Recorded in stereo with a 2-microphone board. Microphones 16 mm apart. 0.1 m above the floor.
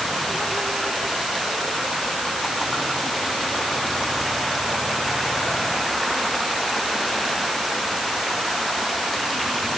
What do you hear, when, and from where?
Only background noise.